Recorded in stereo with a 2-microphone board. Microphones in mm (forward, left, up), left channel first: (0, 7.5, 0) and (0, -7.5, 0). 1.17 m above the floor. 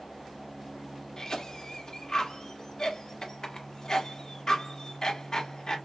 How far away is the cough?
About 1.5 m.